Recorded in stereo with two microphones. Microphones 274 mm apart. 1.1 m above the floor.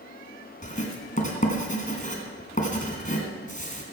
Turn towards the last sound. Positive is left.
turn(degrees=30)  # may be behind; listen again after turning